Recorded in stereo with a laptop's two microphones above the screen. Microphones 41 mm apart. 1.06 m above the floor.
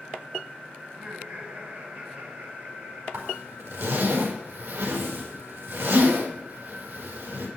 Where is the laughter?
35° right (ahead or behind), 8.5 m; by 3.0 s 45° right (ahead or behind), 6.5 m.